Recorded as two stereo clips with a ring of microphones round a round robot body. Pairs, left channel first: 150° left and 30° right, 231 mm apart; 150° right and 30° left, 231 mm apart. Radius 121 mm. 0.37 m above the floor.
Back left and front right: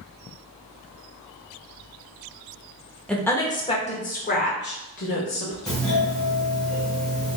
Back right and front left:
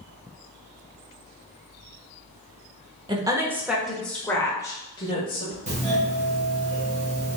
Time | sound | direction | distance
3.1 | a woman speaking | 70° left | 1.0 m
5.7 | a doorbell | 65° left | 1.6 m